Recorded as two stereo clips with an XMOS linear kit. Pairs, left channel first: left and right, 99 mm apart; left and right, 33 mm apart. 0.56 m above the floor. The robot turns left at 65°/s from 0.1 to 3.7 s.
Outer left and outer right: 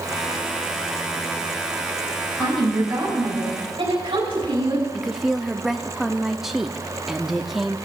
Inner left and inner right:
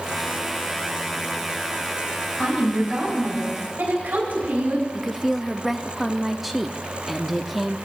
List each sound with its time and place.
2.4 s a woman speaking: 10° left, 4 m; by 4.8 s 75° right, 4 m
4.9 s a woman speaking: 5° right (ahead or behind), 0.6 m